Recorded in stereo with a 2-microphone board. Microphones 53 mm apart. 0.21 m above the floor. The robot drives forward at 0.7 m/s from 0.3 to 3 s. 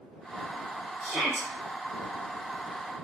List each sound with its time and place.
1.0 s a shout: 5° left (ahead or behind), 5 m